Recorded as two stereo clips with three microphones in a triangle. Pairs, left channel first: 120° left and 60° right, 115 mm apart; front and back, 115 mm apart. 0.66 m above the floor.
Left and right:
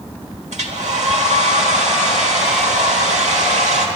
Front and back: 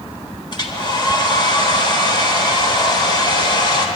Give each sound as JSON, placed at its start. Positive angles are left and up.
{"t": 0.5, "sound": "a hair dryer", "azimuth_deg": -50, "distance_m": 1.3}